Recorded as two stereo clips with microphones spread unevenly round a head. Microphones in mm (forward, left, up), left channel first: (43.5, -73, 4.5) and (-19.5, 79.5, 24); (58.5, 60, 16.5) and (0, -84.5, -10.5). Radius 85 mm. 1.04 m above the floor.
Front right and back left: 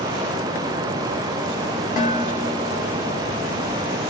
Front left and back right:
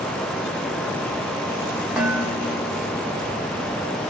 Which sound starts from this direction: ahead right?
Dishes clattering, at 2.0 s.